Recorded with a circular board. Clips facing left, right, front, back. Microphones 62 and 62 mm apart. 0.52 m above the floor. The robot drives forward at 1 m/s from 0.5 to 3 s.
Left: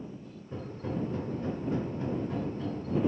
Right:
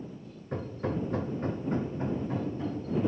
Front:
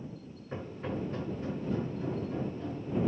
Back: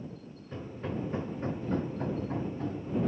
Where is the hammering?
65° right, 0.9 m; by 2.9 s 160° right, 2 m.